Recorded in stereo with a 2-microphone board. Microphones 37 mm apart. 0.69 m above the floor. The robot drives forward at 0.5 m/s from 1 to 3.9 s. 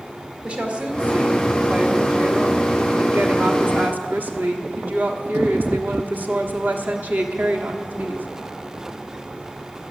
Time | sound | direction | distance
0.4 | a woman speaking | 35° right (ahead or behind) | 2 m